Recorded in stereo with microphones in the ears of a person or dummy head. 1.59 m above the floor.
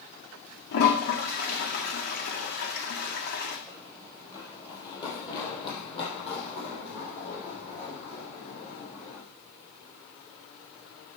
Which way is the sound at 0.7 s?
55° left (ahead or behind).